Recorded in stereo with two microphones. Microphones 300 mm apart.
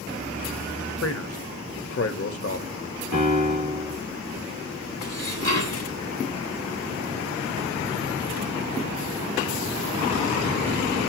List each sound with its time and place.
1.0 s a man speaking: 50° left (ahead or behind), 1.2 m
3.1 s a piano: 70° right (ahead or behind), 3.5 m
5.0 s dishes clattering: 55° right (ahead or behind), 2.5 m